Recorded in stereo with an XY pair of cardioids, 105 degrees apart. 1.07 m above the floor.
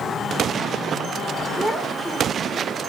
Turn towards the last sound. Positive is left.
turn(degrees=5)